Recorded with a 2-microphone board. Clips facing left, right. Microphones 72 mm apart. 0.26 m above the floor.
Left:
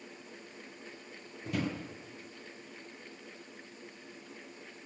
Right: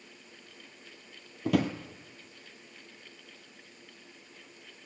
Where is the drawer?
75° right (ahead or behind), 1.5 m.